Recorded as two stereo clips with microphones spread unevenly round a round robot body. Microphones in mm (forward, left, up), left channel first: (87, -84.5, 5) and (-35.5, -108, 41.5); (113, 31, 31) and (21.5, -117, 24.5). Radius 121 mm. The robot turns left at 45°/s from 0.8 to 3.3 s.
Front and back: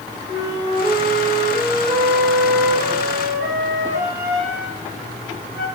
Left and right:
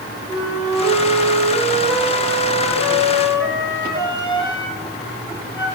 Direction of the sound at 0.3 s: 150° right.